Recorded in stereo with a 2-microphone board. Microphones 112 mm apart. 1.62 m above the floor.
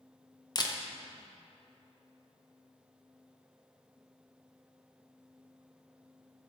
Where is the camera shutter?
40° left (ahead or behind), 0.6 m.